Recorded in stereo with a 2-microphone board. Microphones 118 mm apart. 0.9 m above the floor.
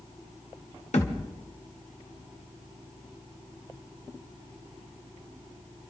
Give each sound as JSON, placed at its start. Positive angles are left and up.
{"t": 0.9, "sound": "a thud", "side_deg": 70, "distance_m": 1.7}